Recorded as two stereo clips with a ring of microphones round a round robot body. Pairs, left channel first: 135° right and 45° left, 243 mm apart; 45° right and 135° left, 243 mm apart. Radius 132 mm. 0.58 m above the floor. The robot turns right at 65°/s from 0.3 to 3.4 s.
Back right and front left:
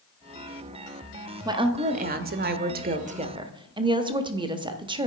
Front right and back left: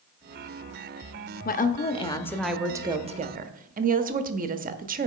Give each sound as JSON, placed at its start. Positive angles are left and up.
{"t": 1.4, "sound": "a woman speaking", "azimuth_deg": -20, "distance_m": 0.7}